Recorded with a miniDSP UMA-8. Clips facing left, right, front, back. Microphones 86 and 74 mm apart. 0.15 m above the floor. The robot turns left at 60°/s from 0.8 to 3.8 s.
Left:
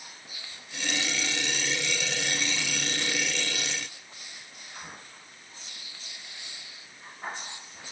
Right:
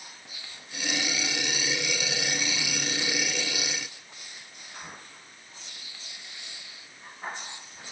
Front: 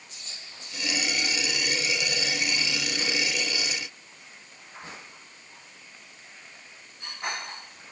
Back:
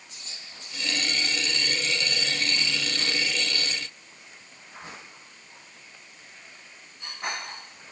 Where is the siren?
I don't hear a siren.